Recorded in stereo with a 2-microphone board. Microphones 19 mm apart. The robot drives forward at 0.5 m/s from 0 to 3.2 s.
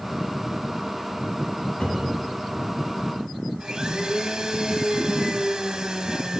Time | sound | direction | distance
1.8 | a cupboard door | 65° left (ahead or behind) | 4 m
3.6 | a blender | 45° right (ahead or behind) | 1.3 m